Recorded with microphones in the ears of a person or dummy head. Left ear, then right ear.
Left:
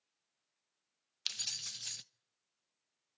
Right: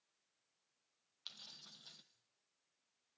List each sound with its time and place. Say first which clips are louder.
1.3 s keys jangling: left 15 dB; 75° left (ahead or behind), 0.6 m